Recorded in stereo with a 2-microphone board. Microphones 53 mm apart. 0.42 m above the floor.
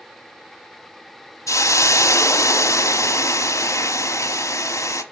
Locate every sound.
1.5 s a hiss: 80° left, 1.1 m